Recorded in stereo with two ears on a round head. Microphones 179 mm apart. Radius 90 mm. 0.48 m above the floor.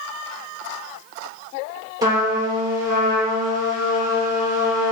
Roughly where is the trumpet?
Centre.